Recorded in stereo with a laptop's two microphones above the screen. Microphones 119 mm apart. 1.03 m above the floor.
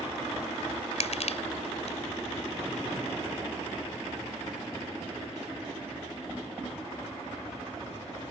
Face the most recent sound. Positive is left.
turn(degrees=65)  # may be behind; listen again after turning